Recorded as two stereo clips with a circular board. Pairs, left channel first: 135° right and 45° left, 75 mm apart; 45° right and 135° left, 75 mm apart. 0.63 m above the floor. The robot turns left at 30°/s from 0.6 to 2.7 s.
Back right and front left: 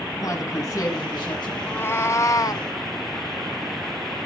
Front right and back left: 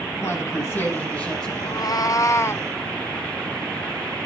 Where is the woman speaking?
100° right, 6 m; by 1.5 s 125° right, 6 m.